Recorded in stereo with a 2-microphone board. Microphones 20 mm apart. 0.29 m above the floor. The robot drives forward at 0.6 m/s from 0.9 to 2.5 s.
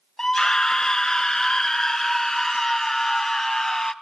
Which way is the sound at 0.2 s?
30° left (ahead or behind).